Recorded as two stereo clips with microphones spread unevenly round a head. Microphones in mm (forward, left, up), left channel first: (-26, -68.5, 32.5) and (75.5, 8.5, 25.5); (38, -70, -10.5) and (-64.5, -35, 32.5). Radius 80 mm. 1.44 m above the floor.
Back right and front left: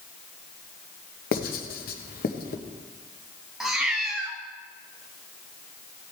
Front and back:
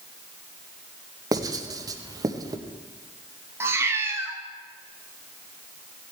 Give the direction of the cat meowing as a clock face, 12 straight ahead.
8 o'clock.